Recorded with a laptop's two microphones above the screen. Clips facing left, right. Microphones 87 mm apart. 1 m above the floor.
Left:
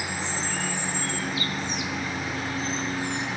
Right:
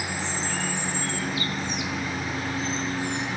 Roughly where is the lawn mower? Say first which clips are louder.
Even; centre.